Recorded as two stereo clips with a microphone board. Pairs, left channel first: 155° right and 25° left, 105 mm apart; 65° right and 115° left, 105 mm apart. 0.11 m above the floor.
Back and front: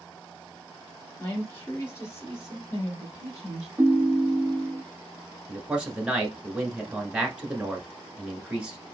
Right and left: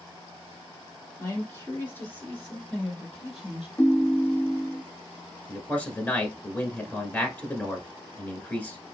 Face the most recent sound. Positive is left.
turn(degrees=-35)